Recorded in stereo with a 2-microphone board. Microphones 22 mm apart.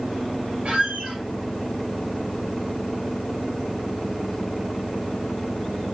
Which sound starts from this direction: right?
A squeak, at 0.7 s.